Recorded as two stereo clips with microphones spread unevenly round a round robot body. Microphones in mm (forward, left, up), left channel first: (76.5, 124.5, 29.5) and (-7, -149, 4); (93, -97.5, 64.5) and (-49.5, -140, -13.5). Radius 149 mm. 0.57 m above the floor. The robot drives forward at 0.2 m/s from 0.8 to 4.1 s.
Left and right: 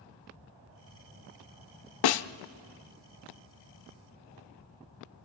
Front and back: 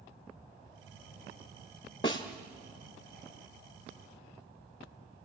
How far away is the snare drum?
About 0.7 m.